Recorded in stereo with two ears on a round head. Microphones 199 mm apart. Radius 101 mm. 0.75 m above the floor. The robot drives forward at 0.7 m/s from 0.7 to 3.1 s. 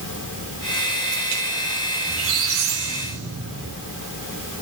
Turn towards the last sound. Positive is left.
turn(degrees=-65)  # may be behind; listen again after turning